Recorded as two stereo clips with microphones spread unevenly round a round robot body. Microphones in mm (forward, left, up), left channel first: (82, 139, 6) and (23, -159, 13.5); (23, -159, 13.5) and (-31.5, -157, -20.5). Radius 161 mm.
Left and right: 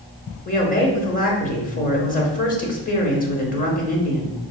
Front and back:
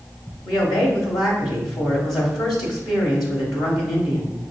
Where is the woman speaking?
35° left, 0.9 m.